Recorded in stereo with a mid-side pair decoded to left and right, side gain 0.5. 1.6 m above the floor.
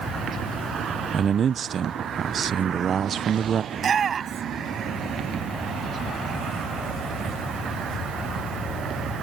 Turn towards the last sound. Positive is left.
turn(degrees=-45)